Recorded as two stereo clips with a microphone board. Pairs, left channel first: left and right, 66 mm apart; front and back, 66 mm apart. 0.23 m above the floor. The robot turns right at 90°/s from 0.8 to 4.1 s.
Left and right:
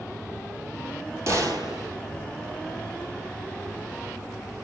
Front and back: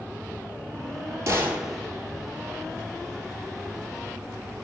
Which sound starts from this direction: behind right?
A gunshot, at 1.3 s.